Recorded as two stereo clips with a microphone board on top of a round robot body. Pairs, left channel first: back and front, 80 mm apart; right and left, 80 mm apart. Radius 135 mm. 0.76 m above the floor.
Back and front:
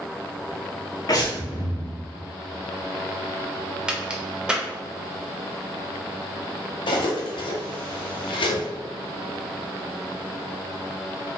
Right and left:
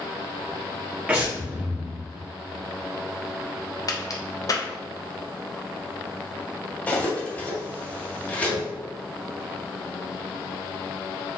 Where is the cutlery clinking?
165° right, 1.1 m.